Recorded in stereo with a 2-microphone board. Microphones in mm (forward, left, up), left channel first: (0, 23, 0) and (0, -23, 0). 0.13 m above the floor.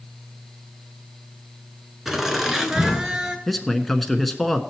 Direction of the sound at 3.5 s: 5° left (ahead or behind).